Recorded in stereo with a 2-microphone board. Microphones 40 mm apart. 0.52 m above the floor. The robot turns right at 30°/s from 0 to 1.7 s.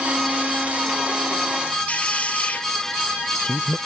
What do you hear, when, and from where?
1.9 s a man speaking: 40° left (ahead or behind)